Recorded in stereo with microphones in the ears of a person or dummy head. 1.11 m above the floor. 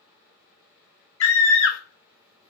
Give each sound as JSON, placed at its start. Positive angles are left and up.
{"t": 1.2, "sound": "a scream", "side_deg": 70, "distance_m": 0.6}